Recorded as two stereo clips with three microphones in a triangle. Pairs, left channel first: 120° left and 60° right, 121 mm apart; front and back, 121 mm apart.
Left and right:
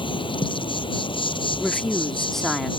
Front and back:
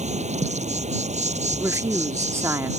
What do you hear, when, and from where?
0.0 s an insect: 165° left
1.6 s a woman speaking: 160° right